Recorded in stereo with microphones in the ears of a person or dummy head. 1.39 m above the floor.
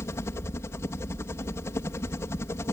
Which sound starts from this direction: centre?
A helicopter, at 0.0 s.